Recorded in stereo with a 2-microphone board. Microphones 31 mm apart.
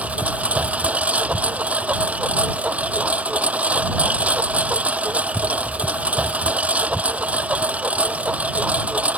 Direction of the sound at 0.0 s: 50° right (ahead or behind).